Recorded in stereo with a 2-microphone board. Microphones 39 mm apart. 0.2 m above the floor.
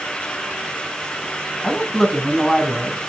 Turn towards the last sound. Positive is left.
turn(degrees=10)  # may be behind; listen again after turning